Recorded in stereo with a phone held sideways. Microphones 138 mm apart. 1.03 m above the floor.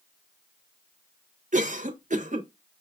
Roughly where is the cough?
Right.